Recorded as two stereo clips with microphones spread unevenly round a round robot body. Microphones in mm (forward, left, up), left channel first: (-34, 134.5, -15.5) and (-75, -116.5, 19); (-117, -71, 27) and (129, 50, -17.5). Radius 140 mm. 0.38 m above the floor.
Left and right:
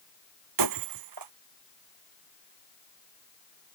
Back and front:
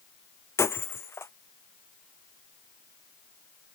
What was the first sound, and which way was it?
Breaking glass, 75° right.